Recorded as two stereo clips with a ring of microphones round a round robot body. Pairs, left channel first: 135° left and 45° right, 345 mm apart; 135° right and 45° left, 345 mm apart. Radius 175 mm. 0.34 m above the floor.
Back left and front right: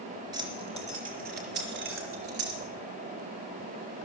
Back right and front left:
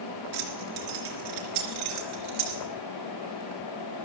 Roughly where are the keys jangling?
Ahead left.